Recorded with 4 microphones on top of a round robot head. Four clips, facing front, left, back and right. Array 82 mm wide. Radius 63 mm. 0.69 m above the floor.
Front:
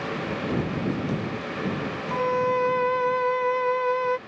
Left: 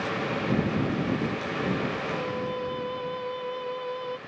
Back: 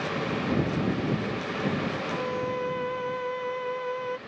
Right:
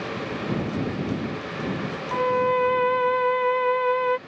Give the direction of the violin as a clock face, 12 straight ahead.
2 o'clock.